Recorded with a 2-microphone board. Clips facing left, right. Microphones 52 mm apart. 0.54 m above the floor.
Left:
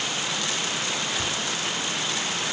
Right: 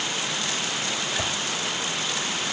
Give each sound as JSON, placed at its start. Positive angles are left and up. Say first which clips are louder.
{"t": 1.2, "sound": "a whoosh", "louder": "right 1 dB", "side_deg": -75, "distance_m": 0.7}